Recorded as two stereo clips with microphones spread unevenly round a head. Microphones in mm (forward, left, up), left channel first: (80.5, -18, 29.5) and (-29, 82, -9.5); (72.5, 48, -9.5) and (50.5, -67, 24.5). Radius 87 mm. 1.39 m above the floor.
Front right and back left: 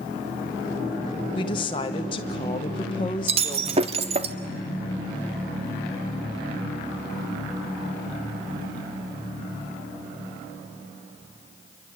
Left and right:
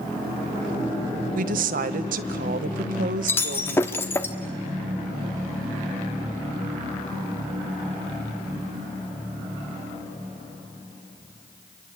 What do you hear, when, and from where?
1.4 s a woman speaking: 105° right, 1.0 m
3.3 s breaking glass: 165° left, 0.9 m